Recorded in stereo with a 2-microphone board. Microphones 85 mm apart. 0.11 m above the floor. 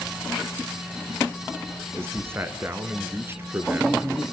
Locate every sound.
1.9 s a man speaking: 30° right (ahead or behind), 1.2 m